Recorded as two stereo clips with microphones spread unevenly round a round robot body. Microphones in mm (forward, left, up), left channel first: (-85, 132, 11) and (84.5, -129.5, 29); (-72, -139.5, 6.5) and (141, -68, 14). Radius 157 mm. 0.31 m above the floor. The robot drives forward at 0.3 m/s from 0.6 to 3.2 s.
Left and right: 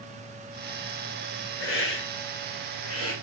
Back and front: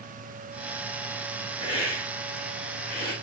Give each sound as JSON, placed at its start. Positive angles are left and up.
{"t": 1.6, "sound": "a hiss", "azimuth_deg": 140, "distance_m": 1.2}